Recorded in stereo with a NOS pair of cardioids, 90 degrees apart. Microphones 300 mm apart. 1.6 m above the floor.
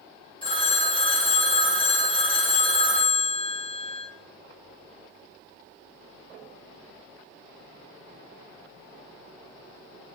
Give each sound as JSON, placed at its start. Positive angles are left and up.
{"t": 0.4, "sound": "a phone ringing", "azimuth_deg": 15, "distance_m": 1.9}